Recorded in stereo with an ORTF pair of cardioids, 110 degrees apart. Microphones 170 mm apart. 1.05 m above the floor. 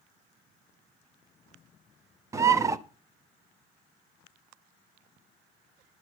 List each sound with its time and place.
2.3 s a bird: 15° right, 0.6 m